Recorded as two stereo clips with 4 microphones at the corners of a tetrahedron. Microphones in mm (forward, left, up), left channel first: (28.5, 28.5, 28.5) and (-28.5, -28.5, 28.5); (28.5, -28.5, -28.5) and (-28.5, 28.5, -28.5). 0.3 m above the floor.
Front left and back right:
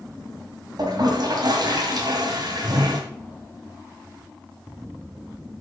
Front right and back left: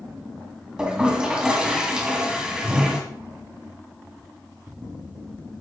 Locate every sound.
0.8 s a toilet flushing: 150° right, 1.9 m